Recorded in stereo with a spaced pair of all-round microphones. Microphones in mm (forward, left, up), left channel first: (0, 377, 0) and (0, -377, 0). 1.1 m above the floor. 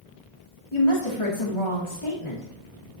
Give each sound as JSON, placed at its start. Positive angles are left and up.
{"t": 0.7, "sound": "a woman speaking", "side_deg": 40, "distance_m": 2.5}